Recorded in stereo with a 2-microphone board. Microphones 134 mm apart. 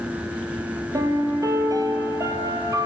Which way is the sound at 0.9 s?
25° right (ahead or behind).